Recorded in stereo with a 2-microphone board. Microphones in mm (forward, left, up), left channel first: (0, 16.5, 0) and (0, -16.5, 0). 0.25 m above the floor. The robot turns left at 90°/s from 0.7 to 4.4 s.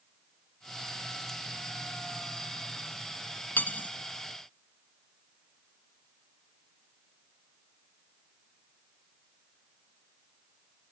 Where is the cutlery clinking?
60° left (ahead or behind), 1.5 m; by 3.9 s 50° left (ahead or behind), 1.5 m.